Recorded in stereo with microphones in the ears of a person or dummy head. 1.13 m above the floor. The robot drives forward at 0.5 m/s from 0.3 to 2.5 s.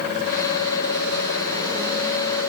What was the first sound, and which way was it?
Only background noise.